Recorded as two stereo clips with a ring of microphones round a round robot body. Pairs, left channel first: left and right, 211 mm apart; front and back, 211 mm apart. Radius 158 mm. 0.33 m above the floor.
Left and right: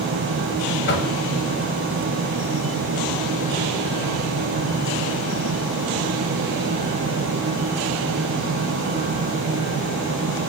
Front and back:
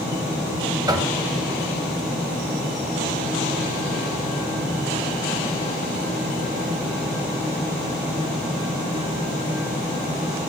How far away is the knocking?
About 1.8 m.